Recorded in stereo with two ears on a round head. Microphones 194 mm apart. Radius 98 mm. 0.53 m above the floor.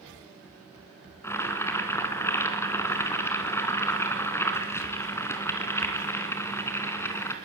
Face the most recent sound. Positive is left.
turn(degrees=10)  # may be behind; listen again after turning